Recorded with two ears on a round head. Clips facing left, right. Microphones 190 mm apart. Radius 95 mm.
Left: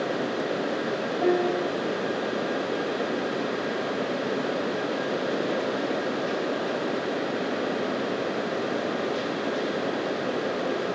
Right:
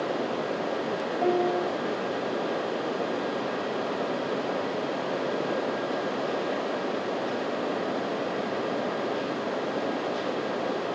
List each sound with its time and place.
1.2 s a piano: 15° left (ahead or behind), 3.5 m